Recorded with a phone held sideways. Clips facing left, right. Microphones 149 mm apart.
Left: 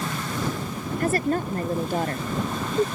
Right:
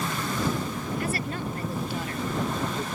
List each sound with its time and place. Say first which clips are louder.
1.0 s a woman speaking: left 11 dB; 45° left (ahead or behind); by 2.9 s 50° left (ahead or behind)